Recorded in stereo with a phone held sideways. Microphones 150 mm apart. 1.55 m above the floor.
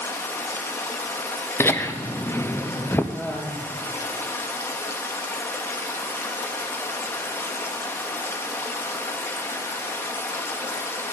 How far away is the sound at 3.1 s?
About 2.5 m.